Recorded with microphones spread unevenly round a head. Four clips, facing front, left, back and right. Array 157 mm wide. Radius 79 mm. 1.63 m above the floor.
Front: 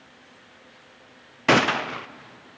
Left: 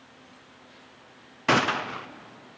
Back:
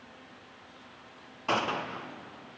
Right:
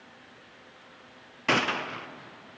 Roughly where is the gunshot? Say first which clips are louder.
Left 4 dB, front 9 dB; ahead.